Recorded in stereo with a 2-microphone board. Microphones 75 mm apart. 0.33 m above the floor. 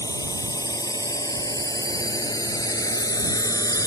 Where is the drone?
55° left (ahead or behind).